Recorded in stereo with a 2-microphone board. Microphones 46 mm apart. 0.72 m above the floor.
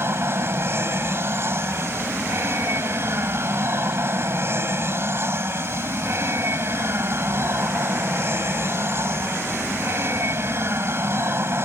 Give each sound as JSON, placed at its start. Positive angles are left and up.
{"t": 0.0, "sound": "an aircraft", "side_deg": -55}